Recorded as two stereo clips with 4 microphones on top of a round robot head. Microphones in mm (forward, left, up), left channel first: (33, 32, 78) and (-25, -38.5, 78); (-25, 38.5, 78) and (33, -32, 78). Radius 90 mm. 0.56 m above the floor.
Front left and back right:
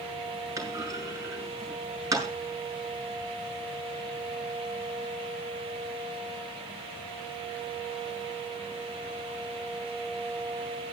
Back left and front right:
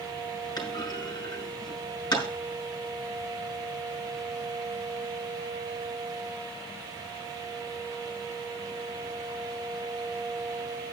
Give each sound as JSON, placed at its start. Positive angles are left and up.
{"t": 0.6, "sound": "a clunk", "azimuth_deg": 175, "distance_m": 5.5}